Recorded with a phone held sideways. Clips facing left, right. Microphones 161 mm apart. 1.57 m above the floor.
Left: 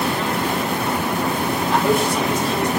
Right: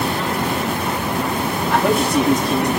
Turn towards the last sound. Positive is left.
turn(degrees=-60)  # may be behind; listen again after turning